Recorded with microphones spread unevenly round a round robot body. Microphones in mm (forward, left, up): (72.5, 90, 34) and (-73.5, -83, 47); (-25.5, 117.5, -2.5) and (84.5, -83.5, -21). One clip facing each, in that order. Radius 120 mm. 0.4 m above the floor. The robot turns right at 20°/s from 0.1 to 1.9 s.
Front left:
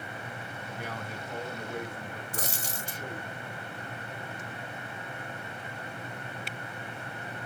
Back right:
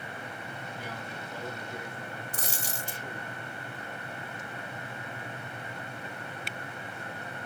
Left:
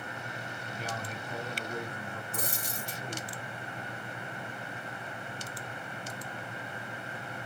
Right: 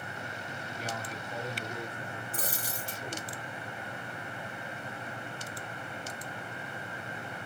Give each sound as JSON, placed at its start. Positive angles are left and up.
{"t": 0.7, "sound": "a man speaking", "azimuth_deg": 65, "distance_m": 2.5}
{"t": 2.3, "sound": "a dropped coin", "azimuth_deg": -150, "distance_m": 1.1}